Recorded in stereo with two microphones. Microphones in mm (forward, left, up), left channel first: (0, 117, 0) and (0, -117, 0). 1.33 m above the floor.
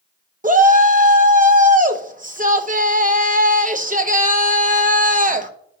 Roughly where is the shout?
Right.